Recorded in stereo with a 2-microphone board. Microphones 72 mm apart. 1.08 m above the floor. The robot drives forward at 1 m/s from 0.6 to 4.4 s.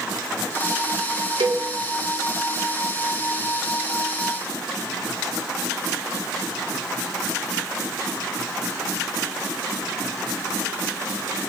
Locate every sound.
1.4 s a cowbell: 80° right, 2.0 m; by 1.6 s 90° right, 1.9 m